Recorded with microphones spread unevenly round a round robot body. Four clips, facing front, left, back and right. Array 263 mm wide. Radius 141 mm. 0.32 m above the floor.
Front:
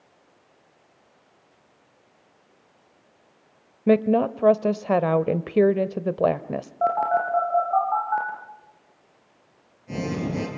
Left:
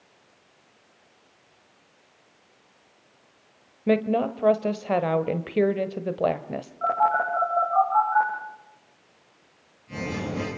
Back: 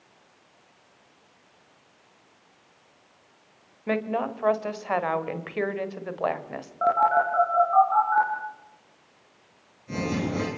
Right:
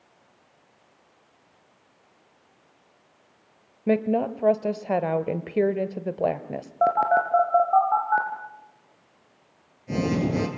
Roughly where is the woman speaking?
Ahead.